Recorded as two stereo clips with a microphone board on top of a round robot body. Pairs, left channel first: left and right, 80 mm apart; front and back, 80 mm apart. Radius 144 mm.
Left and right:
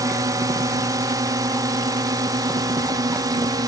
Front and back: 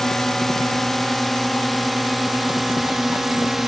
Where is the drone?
85° right; by 3.7 s 95° right.